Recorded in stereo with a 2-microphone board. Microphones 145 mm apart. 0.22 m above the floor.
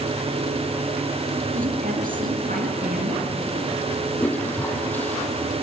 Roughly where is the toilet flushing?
Centre.